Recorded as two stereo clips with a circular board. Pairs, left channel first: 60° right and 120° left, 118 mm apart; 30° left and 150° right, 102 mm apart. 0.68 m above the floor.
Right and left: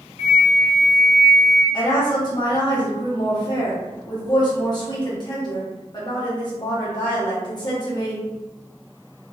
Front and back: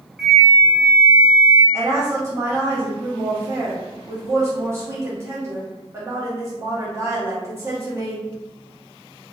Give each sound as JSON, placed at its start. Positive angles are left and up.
{"t": 0.2, "sound": "a flute", "azimuth_deg": -65, "distance_m": 0.8}
{"t": 1.7, "sound": "a woman speaking", "azimuth_deg": -95, "distance_m": 0.9}